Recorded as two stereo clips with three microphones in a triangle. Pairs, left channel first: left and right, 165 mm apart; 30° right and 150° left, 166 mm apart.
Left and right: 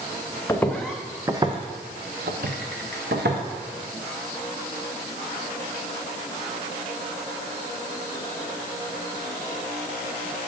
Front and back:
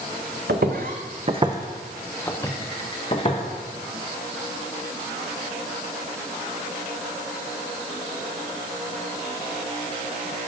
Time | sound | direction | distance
0.5 | footsteps | 165° left | 1.2 m